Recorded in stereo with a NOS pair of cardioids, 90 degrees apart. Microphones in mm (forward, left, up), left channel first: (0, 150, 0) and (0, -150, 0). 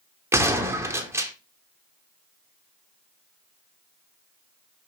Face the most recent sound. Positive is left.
turn(degrees=-10)